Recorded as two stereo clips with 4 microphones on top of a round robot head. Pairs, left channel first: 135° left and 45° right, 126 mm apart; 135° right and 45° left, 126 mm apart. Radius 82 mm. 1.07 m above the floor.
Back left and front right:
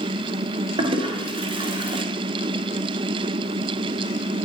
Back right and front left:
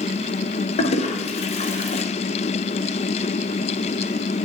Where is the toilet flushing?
95° right, 0.7 m.